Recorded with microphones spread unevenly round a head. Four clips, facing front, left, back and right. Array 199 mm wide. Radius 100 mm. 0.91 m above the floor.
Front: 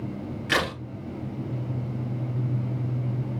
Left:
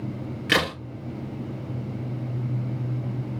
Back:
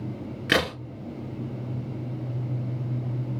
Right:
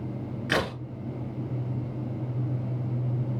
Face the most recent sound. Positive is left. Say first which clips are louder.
# left 3 dB, back 2 dB
turn(degrees=165)